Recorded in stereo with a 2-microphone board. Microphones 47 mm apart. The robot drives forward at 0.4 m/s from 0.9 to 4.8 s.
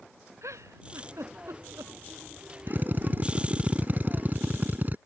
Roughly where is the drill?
Right.